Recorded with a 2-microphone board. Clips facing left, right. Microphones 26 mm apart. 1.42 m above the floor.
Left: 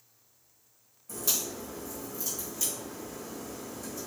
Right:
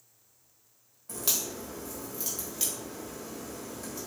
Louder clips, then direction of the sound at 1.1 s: Even; 55° right (ahead or behind).